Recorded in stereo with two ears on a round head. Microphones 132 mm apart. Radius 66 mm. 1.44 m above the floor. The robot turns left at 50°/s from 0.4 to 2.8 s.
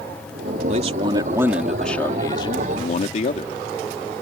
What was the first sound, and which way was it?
A man speaking, 125° right.